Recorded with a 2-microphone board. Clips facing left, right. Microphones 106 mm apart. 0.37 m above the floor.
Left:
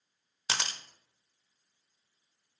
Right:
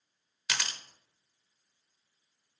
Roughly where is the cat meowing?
No cat meowing in this recording.